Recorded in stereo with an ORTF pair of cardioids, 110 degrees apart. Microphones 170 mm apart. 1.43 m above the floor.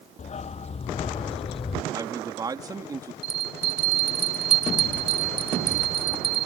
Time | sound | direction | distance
0.2 | a dog barking | 40° left | ?
1.9 | a man speaking | 20° right | ?
3.2 | a bell | 35° right | ?